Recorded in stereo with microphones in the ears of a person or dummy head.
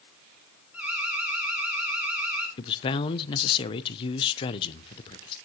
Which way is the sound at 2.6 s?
30° left (ahead or behind).